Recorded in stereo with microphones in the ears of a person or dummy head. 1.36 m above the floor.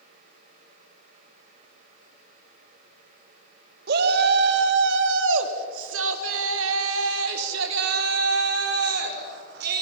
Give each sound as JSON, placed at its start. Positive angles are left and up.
{"t": 3.9, "sound": "a shout", "side_deg": -60, "distance_m": 2.0}